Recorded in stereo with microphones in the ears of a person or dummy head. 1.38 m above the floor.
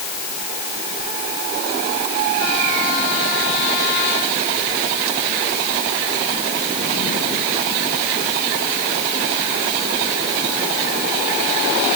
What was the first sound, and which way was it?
Only background noise.